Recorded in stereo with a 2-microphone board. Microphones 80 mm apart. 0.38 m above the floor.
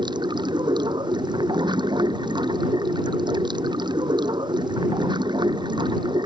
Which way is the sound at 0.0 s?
70° right (ahead or behind).